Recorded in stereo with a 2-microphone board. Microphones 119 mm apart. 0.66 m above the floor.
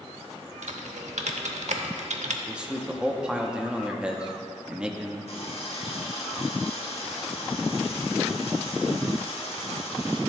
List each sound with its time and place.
0.6 s typing on a keyboard: 80° right, 0.7 m
2.5 s a man speaking: 10° right (ahead or behind), 0.7 m
5.3 s a running tap: 60° left (ahead or behind), 1.2 m